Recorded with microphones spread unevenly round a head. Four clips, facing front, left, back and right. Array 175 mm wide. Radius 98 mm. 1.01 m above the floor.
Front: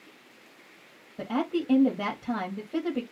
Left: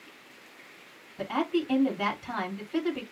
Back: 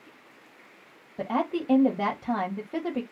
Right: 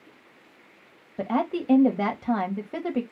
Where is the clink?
I don't hear a clink.